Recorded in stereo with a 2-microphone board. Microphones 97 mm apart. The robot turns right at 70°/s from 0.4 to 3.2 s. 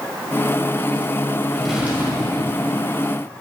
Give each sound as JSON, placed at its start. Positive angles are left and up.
{"t": 1.5, "sound": "a drawer", "azimuth_deg": 170, "distance_m": 1.7}